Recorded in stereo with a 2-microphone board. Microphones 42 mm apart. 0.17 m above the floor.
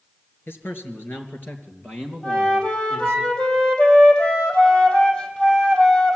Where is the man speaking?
65° left (ahead or behind), 3 m; by 3.2 s 35° left (ahead or behind), 4 m.